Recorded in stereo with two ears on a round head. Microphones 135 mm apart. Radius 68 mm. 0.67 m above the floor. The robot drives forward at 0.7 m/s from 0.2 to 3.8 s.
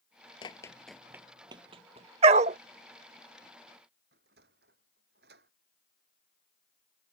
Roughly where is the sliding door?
Right.